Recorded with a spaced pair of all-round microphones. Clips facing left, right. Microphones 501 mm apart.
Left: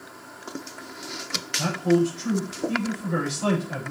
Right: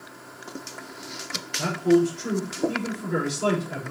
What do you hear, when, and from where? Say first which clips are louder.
1.6 s a man speaking: right 2 dB; 20° left (ahead or behind), 3.5 m